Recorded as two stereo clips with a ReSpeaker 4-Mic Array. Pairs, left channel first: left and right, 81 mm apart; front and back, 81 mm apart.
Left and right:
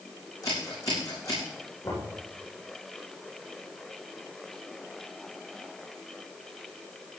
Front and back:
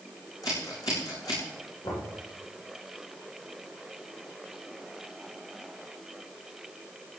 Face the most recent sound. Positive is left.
turn(degrees=30)